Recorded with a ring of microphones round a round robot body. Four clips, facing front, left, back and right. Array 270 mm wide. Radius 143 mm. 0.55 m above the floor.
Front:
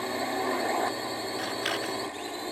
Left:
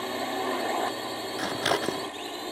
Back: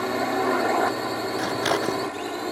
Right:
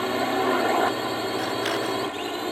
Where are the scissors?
150° left.